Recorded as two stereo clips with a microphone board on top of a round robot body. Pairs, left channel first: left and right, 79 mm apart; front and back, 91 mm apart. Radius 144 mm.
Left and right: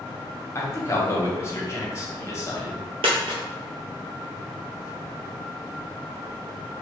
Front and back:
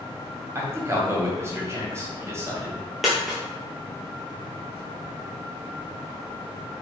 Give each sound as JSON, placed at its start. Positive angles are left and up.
{"t": 0.6, "sound": "a man speaking", "azimuth_deg": 130, "distance_m": 1.5}
{"t": 3.0, "sound": "a dropped coin", "azimuth_deg": -90, "distance_m": 0.6}